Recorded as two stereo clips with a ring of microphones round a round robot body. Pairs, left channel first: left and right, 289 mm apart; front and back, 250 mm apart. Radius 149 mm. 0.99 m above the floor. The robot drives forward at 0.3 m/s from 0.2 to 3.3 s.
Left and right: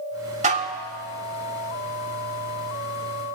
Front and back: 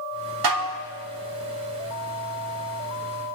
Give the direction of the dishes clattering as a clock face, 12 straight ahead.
5 o'clock.